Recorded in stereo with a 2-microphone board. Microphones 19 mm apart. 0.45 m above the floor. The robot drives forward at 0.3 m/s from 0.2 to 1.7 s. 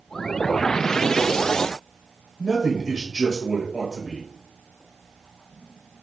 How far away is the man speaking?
About 1.5 m.